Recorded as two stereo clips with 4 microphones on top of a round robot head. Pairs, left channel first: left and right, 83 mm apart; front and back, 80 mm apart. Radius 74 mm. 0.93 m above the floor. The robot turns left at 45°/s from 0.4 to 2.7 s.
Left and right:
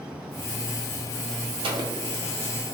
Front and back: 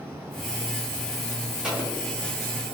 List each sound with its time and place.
1.6 s an explosion: 100° right, 0.8 m; by 1.9 s 110° right, 0.8 m